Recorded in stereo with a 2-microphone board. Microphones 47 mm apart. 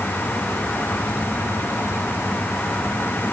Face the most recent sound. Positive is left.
No sound to turn to.